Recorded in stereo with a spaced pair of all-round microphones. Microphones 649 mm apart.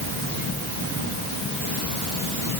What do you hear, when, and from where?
Only background noise.